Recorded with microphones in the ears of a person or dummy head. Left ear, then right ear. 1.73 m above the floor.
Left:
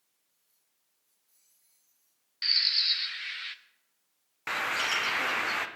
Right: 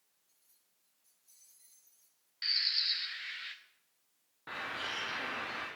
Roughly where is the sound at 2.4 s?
Centre.